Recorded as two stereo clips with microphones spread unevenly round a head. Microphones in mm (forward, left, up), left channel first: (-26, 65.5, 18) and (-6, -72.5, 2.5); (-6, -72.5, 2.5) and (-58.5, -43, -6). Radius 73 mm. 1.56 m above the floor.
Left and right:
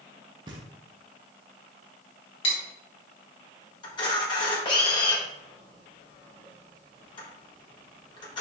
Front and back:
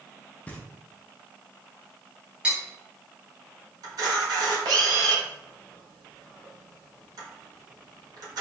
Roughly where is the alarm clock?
I don't hear an alarm clock.